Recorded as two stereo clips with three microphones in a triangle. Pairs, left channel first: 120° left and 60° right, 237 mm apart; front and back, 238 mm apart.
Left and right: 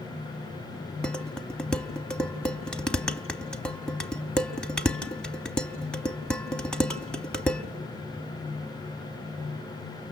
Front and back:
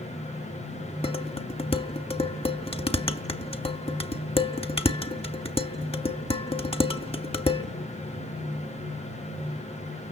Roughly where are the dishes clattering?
Ahead left.